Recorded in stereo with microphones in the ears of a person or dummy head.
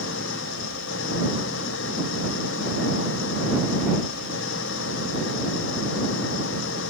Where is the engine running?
65° left (ahead or behind).